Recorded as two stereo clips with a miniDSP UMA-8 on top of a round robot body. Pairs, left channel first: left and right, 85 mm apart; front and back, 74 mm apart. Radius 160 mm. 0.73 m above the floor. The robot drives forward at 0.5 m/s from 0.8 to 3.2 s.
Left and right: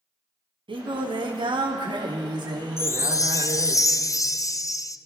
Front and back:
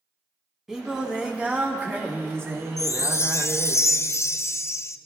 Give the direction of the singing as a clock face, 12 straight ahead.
3 o'clock.